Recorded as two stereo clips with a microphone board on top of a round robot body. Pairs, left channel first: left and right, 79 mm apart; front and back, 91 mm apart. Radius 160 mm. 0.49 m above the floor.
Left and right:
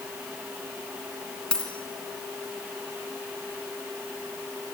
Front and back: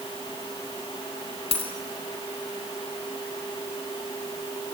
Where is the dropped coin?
10° left, 3 m.